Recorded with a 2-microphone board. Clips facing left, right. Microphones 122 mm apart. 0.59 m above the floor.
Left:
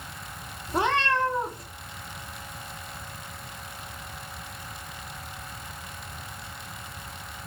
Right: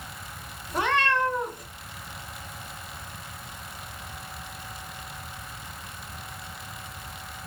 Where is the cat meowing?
25° left (ahead or behind), 0.7 m.